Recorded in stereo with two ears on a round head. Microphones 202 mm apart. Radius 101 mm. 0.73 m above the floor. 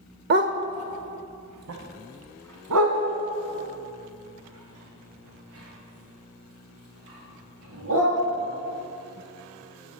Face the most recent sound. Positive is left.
turn(degrees=-70)  # may be behind; listen again after turning